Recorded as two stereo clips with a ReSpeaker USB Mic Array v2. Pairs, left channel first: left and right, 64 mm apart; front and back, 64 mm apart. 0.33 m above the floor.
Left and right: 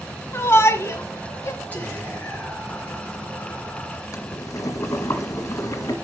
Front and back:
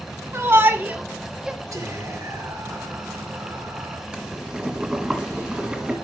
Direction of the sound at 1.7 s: 155° left.